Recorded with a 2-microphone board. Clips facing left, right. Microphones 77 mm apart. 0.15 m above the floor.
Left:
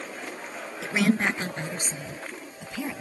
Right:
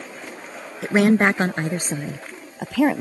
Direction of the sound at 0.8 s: 45° right (ahead or behind).